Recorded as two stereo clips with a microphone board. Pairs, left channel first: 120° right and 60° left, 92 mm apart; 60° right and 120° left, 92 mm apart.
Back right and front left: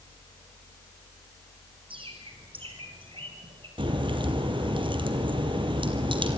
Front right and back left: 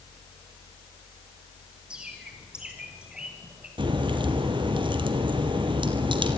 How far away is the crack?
About 2.5 m.